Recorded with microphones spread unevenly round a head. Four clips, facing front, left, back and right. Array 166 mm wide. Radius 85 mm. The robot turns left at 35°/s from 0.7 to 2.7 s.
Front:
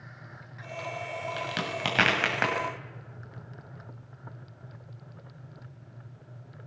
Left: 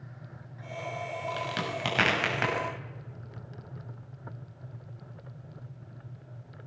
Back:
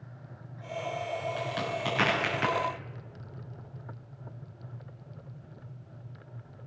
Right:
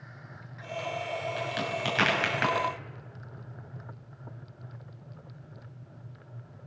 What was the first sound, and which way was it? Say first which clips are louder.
A crack: right 1 dB, even; 30° left.